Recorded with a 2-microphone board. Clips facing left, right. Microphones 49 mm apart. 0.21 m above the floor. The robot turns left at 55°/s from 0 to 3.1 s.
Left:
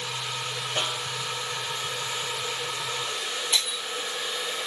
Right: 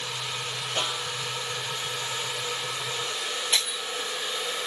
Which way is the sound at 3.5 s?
45° right (ahead or behind).